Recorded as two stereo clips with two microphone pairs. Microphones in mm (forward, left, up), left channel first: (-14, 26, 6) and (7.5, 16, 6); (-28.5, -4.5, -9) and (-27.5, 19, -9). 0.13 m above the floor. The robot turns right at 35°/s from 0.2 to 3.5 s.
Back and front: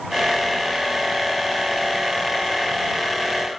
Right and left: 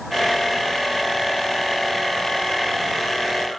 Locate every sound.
Only background noise.